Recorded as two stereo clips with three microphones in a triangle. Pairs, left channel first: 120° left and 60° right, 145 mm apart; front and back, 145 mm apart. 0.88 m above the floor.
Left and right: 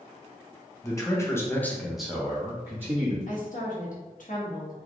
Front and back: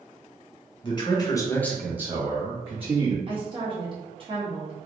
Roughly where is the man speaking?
Ahead left.